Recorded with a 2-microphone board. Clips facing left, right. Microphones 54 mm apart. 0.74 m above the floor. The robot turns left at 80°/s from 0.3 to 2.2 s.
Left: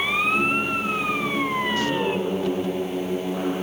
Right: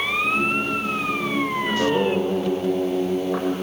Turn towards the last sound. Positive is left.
turn(degrees=-110)